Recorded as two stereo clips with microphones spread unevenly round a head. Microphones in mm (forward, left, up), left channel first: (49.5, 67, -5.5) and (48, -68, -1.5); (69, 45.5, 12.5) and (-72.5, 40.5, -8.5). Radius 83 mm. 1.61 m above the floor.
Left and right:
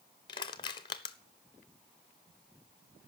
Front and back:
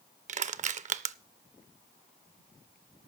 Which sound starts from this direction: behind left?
Crushing, at 0.3 s.